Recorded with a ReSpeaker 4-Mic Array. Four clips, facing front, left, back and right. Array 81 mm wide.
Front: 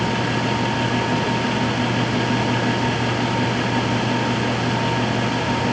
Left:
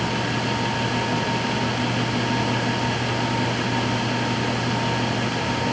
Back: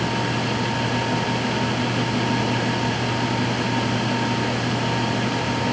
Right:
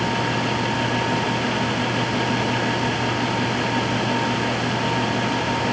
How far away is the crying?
No crying in this recording.